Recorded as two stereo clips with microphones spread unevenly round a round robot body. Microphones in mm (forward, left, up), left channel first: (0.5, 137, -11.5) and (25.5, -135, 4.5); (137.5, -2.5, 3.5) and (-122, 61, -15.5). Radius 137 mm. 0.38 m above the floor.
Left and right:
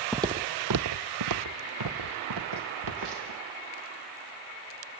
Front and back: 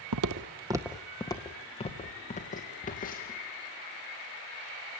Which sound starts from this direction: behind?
Footsteps, at 0.1 s.